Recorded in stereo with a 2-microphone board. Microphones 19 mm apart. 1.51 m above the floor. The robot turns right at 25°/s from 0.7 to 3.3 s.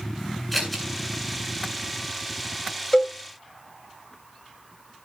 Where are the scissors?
5° left (ahead or behind), 7 m; by 0.8 s 10° left (ahead or behind), 7 m.